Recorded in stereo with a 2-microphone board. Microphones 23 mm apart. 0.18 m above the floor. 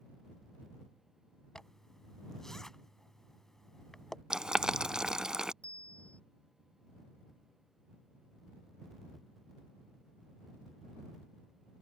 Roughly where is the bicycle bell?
Left.